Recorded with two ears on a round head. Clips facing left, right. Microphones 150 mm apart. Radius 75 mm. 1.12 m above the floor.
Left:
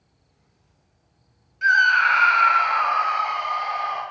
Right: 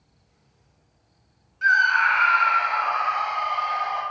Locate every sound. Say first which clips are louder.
1.6 s a scream: left 1 dB; 20° left (ahead or behind), 0.7 m; by 4.0 s 65° left (ahead or behind), 1.4 m